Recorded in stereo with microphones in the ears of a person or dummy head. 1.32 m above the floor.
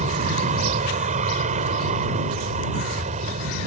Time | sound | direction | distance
0.0 | an aircraft | 35° right (ahead or behind) | ?